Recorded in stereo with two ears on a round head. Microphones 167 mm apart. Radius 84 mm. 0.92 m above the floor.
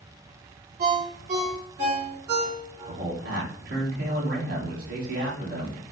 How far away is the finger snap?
I don't hear a finger snap.